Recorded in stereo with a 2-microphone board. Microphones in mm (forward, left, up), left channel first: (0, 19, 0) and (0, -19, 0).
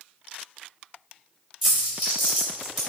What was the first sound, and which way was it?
A dropped coin, 5° right (ahead or behind).